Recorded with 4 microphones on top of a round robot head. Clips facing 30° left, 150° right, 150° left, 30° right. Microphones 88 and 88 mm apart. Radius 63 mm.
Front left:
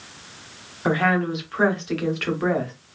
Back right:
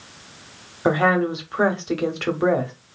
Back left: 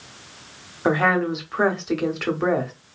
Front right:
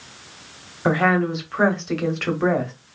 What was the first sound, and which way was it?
A woman speaking, 135° right.